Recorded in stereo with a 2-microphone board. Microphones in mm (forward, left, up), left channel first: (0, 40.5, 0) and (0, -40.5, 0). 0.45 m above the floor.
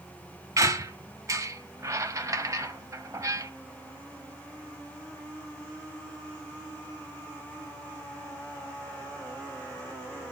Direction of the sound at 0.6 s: 40° right (ahead or behind).